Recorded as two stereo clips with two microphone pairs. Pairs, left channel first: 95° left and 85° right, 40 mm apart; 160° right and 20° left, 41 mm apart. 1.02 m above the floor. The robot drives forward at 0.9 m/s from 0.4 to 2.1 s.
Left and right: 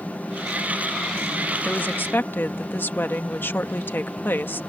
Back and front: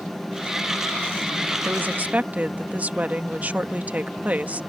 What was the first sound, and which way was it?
A woman speaking, 55° left.